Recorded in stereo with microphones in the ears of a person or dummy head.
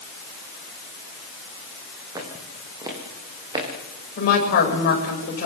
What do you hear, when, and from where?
2.1 s footsteps: 20° right (ahead or behind), 5.5 m; by 3.7 s 25° right (ahead or behind), 6.5 m
4.2 s a woman speaking: 50° left (ahead or behind), 9 m